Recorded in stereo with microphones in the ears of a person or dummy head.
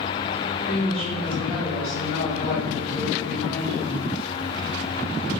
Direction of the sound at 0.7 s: 65° left (ahead or behind).